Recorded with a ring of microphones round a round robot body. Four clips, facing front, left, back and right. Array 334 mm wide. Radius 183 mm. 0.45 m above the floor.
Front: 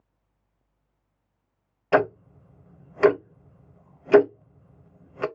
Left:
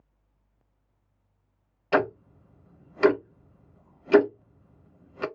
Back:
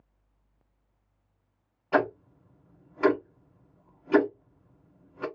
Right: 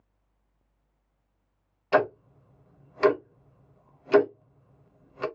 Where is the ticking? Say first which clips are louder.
Right 1 dB, front 4 dB; 10° left, 0.5 m.